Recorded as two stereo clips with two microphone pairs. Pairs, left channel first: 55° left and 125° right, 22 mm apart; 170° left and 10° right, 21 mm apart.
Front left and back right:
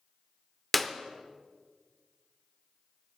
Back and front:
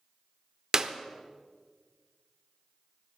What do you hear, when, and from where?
0.7 s a clap: 20° right, 0.7 m